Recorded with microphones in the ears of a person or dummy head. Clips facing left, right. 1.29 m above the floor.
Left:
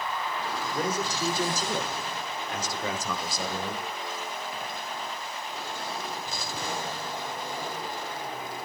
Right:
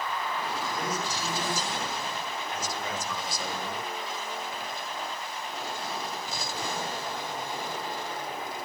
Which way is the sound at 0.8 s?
30° left (ahead or behind).